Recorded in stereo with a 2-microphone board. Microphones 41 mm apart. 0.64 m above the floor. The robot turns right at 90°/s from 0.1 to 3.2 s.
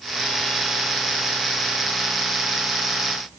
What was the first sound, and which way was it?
Only background noise.